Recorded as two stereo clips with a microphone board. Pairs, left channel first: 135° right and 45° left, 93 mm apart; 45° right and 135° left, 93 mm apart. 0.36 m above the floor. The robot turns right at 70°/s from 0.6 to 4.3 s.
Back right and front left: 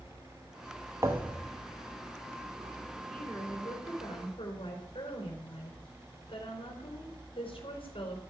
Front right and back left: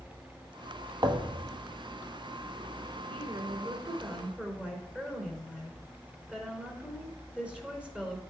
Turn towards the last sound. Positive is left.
turn(degrees=-145)